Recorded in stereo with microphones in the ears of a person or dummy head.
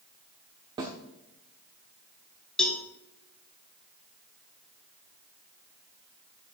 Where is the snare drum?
25° right (ahead or behind), 1.3 m.